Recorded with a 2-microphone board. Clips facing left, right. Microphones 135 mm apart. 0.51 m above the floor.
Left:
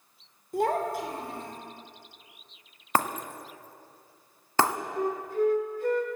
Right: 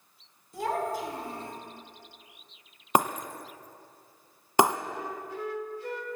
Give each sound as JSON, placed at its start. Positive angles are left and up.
{"t": 0.5, "sound": "a child speaking", "side_deg": 55, "distance_m": 1.5}
{"t": 3.0, "sound": "breaking glass", "side_deg": -15, "distance_m": 0.5}
{"t": 5.0, "sound": "a flute", "side_deg": 50, "distance_m": 1.1}